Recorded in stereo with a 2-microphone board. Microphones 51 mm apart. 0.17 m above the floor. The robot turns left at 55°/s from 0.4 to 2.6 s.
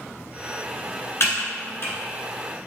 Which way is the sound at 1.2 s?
55° left (ahead or behind).